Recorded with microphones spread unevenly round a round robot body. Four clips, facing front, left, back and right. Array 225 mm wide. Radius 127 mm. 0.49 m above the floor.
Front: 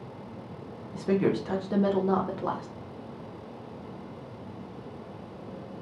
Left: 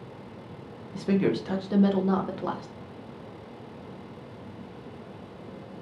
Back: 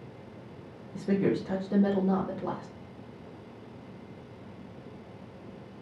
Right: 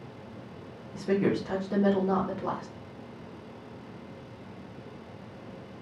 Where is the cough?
No cough in this recording.